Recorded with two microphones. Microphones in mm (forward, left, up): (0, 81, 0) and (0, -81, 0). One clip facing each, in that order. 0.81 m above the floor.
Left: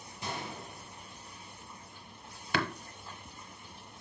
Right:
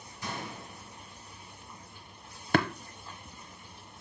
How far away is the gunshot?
About 3 m.